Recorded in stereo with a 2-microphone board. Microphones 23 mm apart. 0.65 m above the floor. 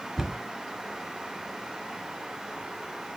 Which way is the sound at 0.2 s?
15° right (ahead or behind).